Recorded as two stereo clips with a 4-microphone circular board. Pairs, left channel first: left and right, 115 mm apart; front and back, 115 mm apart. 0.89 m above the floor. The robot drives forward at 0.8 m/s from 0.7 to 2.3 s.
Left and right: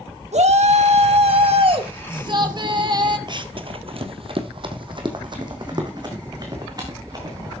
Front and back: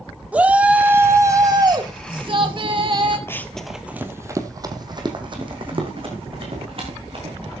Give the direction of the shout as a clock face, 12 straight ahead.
3 o'clock.